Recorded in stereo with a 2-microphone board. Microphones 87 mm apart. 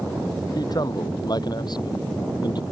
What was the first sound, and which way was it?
A man speaking, 50° left (ahead or behind).